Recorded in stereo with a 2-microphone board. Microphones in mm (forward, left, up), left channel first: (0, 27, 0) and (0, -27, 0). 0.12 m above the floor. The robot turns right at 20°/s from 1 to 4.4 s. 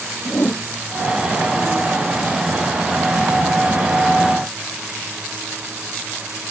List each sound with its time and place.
0.2 s a whoosh: 50° left (ahead or behind)